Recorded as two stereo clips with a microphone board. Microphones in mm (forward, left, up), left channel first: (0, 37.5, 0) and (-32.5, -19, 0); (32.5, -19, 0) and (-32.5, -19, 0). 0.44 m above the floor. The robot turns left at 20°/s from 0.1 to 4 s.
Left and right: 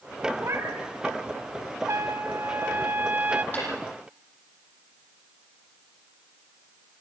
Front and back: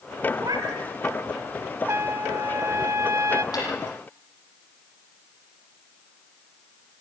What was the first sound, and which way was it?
A cat meowing, 165° right.